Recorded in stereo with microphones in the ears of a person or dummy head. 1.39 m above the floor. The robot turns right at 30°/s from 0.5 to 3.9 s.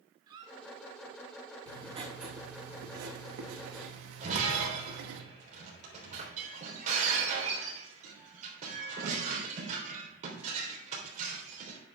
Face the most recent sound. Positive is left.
turn(degrees=-40)  # may be behind; listen again after turning